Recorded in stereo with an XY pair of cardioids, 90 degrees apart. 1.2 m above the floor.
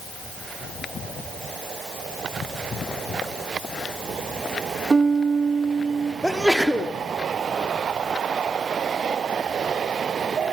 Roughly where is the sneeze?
Ahead.